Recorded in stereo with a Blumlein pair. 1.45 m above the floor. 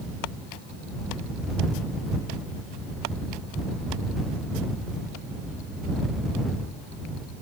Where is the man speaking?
No man speaking in this recording.